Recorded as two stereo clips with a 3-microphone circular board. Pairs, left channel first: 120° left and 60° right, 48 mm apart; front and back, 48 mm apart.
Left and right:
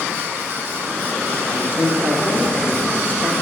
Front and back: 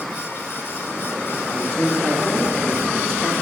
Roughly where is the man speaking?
Left.